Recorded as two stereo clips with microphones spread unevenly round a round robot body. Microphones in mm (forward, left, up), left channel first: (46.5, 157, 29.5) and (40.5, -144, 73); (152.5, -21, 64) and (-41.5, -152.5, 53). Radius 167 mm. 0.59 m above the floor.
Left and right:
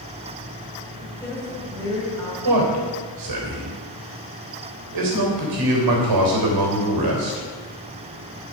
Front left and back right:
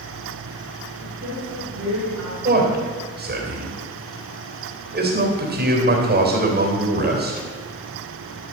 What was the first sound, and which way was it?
A woman speaking, 170° left.